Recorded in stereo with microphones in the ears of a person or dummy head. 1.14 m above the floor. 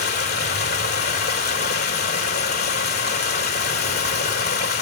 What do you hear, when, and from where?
0.0 s running water: 45° left (ahead or behind), 2.5 m